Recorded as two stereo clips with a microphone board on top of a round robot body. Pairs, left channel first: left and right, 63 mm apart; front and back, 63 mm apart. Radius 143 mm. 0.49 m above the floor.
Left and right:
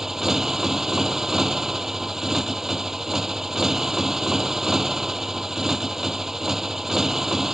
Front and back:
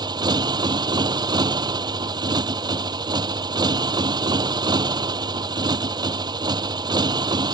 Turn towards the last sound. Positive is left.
turn(degrees=-175)